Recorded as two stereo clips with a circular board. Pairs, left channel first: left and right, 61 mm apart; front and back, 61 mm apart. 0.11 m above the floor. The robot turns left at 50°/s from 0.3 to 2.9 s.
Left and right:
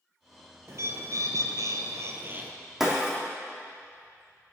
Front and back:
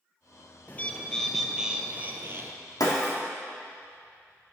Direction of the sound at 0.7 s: 55° right.